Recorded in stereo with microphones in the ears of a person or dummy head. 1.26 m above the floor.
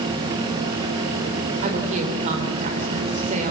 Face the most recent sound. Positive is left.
turn(degrees=-45)  # may be behind; listen again after turning